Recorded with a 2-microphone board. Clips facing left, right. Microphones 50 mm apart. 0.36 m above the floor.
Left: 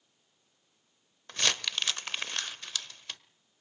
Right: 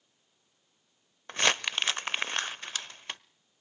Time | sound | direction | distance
1.3 | crumpling | 30° right (ahead or behind) | 0.6 m